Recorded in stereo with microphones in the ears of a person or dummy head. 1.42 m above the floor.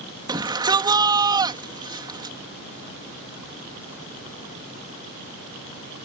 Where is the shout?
25° right (ahead or behind).